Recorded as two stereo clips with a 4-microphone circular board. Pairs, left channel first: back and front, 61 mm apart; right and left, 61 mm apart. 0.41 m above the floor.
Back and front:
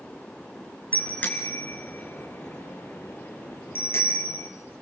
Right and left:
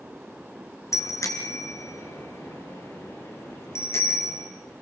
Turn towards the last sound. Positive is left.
turn(degrees=-130)